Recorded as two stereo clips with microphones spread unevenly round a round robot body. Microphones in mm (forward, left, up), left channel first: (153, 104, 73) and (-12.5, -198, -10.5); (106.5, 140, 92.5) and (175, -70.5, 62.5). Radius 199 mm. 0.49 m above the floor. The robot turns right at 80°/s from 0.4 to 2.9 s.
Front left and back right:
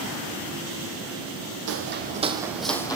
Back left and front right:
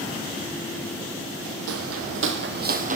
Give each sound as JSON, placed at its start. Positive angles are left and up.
{"t": 1.7, "sound": "footsteps", "azimuth_deg": -65, "distance_m": 1.5}